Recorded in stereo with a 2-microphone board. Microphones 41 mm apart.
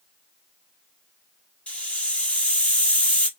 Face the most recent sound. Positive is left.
turn(degrees=30)  # may be behind; listen again after turning